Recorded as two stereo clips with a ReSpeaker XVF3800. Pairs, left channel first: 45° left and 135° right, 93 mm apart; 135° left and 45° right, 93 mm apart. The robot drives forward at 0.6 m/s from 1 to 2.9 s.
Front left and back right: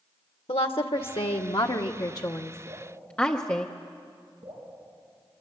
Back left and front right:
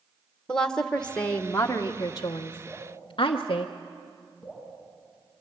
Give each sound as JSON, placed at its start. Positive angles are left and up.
{"t": 0.5, "sound": "a woman speaking", "azimuth_deg": 55, "distance_m": 1.2}
{"t": 2.7, "sound": "dripping", "azimuth_deg": -115, "distance_m": 6.0}